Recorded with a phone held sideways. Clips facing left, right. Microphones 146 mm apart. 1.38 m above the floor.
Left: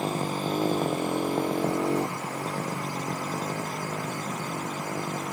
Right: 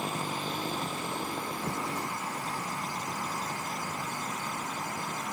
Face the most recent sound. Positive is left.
turn(degrees=85)